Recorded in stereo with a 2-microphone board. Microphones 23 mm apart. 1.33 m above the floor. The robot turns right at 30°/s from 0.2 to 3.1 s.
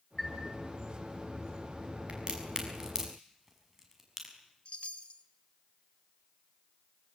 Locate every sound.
0.2 s a chime: 5° right (ahead or behind), 5 m; by 0.4 s centre (ahead or behind), 5 m
2.1 s a crack: 50° right (ahead or behind), 6 m; by 4.3 s 20° right (ahead or behind), 6 m
4.7 s a chime: 50° left (ahead or behind), 1.6 m